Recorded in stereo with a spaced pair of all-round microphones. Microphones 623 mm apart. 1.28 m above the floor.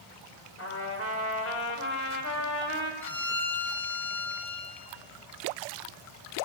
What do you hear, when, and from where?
0.6 s a trumpet: 25° left (ahead or behind), 2.5 m
3.0 s a violin: 5° left (ahead or behind), 3.5 m